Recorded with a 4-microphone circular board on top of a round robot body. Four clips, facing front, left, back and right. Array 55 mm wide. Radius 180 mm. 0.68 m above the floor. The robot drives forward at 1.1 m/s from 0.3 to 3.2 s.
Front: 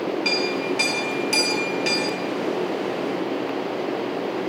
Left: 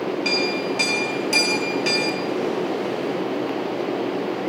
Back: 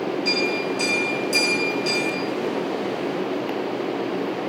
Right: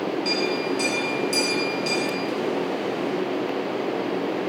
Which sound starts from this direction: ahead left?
A clink, at 0.2 s.